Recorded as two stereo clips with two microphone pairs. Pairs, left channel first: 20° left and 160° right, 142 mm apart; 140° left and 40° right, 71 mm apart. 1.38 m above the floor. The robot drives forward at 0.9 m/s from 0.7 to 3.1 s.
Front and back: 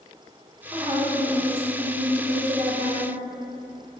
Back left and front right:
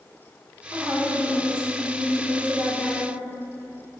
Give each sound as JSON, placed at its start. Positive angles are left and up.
{"t": 0.7, "sound": "a woman speaking", "azimuth_deg": -100, "distance_m": 2.0}